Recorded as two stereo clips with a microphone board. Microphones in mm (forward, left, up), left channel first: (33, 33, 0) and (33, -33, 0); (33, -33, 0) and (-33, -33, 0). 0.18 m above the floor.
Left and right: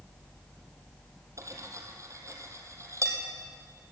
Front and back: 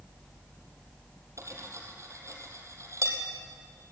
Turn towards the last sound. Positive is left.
turn(degrees=-135)